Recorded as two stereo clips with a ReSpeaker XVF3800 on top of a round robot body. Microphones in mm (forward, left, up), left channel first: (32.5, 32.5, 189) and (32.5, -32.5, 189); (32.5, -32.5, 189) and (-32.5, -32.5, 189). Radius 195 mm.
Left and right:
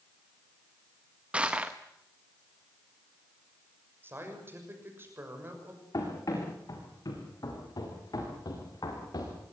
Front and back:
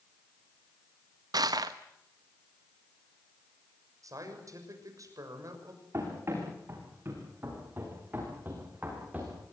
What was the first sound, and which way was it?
Crushing, 165° right.